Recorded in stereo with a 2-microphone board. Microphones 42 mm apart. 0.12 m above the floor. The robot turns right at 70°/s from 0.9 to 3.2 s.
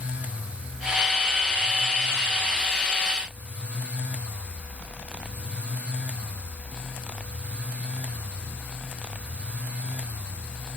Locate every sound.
Only background noise.